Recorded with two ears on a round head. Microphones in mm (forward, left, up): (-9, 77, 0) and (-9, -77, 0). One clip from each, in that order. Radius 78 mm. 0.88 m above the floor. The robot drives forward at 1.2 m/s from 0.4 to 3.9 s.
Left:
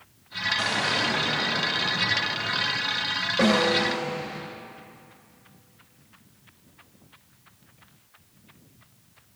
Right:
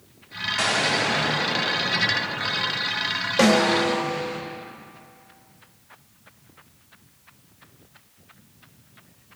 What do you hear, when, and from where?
0.6 s an explosion: 40° right (ahead or behind), 3.5 m; by 4.4 s 20° right (ahead or behind), 7 m
3.4 s a snare drum: 65° right (ahead or behind), 3.5 m; by 4.0 s 60° right (ahead or behind), 4 m